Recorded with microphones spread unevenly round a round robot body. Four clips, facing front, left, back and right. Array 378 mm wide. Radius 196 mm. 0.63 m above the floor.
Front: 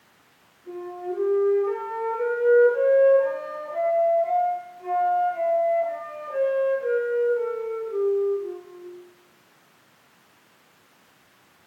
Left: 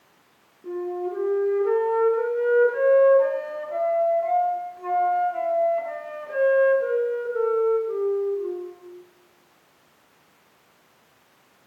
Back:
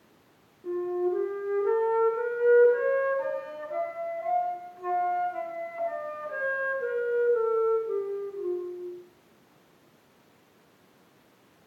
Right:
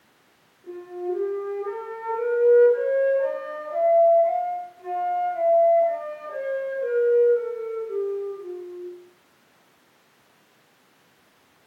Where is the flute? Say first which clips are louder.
Left 2 dB, back 4 dB; 110° left, 7 m.